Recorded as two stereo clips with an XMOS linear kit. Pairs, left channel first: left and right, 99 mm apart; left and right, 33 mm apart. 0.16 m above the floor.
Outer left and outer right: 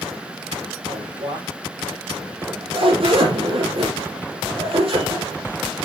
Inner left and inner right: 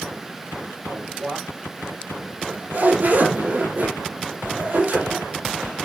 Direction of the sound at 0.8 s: 70° right (ahead or behind).